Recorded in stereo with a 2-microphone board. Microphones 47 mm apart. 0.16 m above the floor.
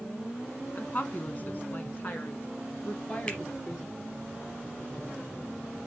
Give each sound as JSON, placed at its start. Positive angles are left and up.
{"t": 0.8, "sound": "a woman speaking", "side_deg": 35, "distance_m": 1.4}
{"t": 3.3, "sound": "a finger snap", "side_deg": 25, "distance_m": 3.5}